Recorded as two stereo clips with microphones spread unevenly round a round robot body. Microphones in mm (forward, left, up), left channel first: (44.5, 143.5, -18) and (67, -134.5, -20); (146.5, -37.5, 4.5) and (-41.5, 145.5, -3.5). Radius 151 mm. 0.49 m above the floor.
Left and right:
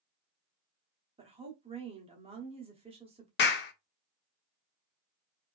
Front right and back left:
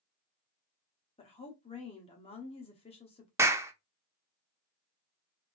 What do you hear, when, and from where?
1.2 s a woman speaking: 65° right, 0.9 m
3.4 s a clap: 60° left, 0.6 m